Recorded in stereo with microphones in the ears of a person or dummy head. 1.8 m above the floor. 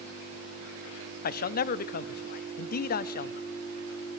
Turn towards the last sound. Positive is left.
turn(degrees=40)  # may be behind; listen again after turning